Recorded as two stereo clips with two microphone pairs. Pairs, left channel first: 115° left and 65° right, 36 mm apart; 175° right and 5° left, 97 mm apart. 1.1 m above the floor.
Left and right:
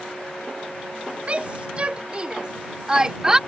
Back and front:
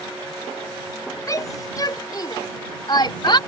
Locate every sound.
1.3 s a shout: 120° right; by 3.4 s 140° right